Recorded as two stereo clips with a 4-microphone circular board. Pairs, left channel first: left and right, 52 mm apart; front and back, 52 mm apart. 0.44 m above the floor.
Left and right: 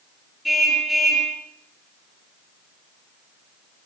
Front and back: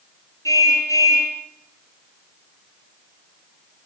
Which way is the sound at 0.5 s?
Straight ahead.